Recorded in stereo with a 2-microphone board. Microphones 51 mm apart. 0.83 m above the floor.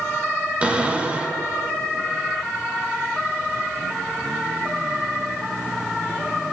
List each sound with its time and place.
0.6 s a cupboard door: 20° right (ahead or behind), 1.5 m